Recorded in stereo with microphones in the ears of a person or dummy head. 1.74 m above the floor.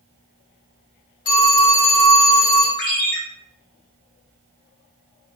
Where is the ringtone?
40° left (ahead or behind), 1.1 m.